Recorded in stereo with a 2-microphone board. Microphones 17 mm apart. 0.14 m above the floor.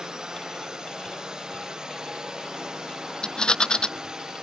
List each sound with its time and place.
0.0 s a drone: 45° right (ahead or behind)
3.2 s a rattle: 60° left (ahead or behind)